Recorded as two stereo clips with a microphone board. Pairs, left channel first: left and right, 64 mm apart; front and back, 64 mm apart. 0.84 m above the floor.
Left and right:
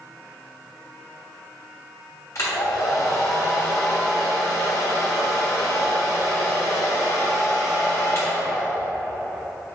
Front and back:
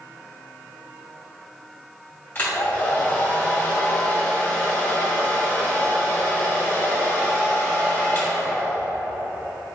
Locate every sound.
2.4 s a hair dryer: 55° left, 2 m